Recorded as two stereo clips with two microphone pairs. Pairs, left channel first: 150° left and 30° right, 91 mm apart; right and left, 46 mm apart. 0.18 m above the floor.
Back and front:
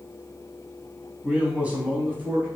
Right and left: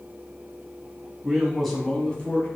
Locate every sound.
1.2 s a man speaking: 30° left, 1.1 m; by 2.5 s 85° right, 1.2 m